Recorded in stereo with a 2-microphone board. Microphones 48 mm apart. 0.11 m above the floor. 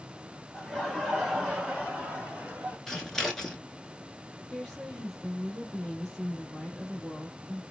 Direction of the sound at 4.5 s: 5° left (ahead or behind).